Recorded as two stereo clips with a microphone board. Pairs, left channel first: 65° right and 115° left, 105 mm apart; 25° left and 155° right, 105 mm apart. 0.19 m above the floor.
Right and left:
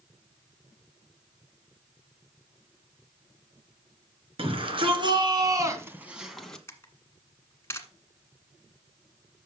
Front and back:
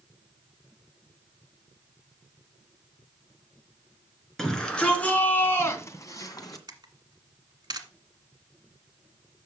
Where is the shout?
110° left, 2.5 m; by 6.6 s 10° left, 1.7 m.